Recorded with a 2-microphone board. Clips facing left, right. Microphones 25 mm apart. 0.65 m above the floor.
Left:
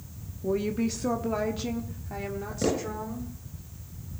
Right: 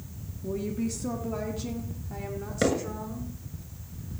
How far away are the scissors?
No scissors in this recording.